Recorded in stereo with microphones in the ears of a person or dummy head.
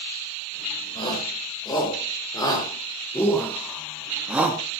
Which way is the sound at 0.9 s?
25° left (ahead or behind).